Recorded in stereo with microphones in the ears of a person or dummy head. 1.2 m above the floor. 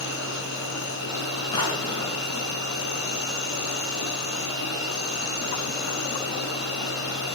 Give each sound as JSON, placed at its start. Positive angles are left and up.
{"t": 0.0, "sound": "an insect", "side_deg": 65, "distance_m": 9.0}
{"t": 1.5, "sound": "a drawer", "side_deg": 25, "distance_m": 4.5}